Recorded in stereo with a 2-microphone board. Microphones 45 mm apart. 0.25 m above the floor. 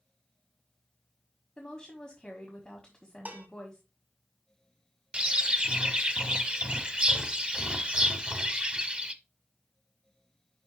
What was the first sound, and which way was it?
A woman speaking, 15° left (ahead or behind).